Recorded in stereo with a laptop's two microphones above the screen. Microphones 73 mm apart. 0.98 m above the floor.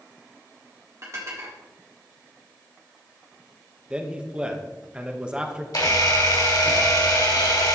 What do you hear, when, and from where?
1.0 s dishes clattering: 45° right (ahead or behind), 1.5 m
3.9 s a man speaking: 15° right (ahead or behind), 0.8 m
5.7 s a camera shutter: 65° left (ahead or behind), 2.5 m